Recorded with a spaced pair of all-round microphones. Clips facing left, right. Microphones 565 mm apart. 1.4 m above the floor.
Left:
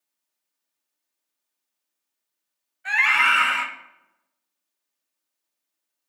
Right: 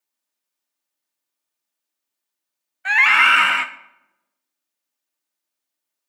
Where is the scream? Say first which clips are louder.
Right 5 dB; 80° right, 0.5 m.